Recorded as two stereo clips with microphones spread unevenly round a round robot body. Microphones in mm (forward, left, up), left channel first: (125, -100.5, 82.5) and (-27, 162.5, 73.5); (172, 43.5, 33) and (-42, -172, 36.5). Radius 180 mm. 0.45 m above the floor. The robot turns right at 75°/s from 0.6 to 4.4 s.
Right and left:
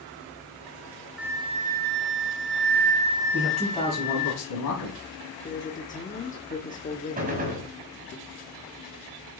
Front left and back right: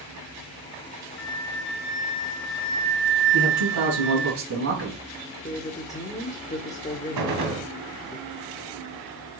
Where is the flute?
35° left, 1.0 m; by 4.3 s 85° right, 1.0 m.